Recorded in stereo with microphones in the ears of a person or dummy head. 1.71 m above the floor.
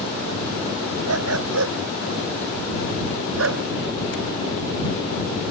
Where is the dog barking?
85° right; by 3.6 s 80° right.